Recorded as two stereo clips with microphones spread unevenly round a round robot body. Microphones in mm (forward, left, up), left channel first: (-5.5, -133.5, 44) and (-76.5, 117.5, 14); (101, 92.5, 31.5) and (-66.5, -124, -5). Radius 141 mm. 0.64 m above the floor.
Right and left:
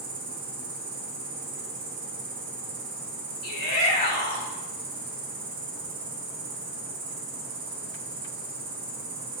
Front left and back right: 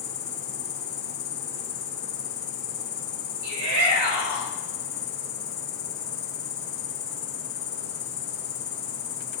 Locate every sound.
0.0 s an insect: 105° left, 3.5 m
3.4 s a shout: 130° right, 3 m